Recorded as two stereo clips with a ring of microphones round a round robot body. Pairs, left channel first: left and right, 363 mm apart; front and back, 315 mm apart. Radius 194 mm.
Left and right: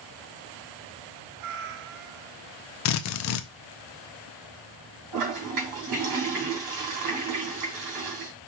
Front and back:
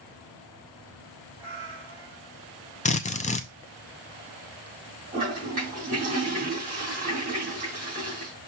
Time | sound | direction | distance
1.4 | a cat meowing | 100° right | 0.7 m
2.9 | a drill | 65° left | 0.6 m
5.1 | a toilet flushing | 110° right | 2.5 m